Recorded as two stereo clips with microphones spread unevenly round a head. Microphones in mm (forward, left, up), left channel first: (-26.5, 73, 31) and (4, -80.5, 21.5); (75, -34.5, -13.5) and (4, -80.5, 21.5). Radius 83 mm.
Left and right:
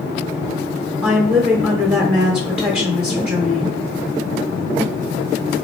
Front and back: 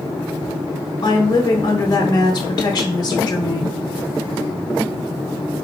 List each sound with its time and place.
1.0 s a woman speaking: straight ahead, 1.1 m